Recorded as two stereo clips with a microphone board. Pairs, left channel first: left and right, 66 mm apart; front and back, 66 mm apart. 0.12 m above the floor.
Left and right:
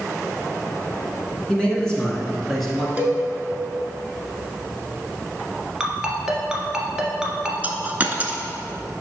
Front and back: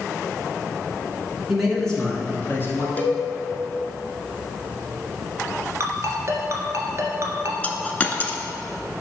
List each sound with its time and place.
1.5 s a man speaking: 120° left, 1.3 m; by 2.9 s straight ahead, 1.6 m
3.0 s a cowbell: 35° right, 0.9 m
5.8 s a ringtone: 170° right, 1.1 m
7.6 s a dropped coin: 50° right, 0.6 m